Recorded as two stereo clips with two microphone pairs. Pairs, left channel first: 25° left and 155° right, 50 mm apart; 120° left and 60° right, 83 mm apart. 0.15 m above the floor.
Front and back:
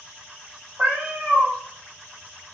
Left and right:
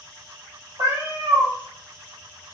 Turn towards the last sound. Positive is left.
turn(degrees=-90)